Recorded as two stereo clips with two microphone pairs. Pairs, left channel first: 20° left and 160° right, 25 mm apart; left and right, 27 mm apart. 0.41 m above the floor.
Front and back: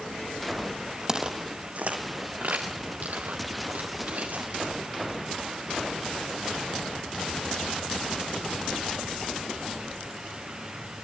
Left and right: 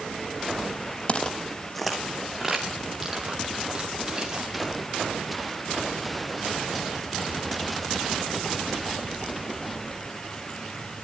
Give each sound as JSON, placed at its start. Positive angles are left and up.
{"t": 1.1, "sound": "footsteps", "azimuth_deg": 135, "distance_m": 0.9}